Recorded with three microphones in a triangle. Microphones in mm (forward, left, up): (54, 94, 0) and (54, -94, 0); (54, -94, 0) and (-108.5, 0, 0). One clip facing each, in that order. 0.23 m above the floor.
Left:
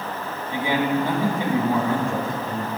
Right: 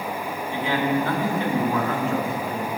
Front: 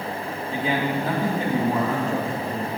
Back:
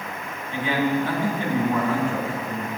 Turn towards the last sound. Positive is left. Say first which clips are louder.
# left 1 dB, back 2 dB
turn(degrees=15)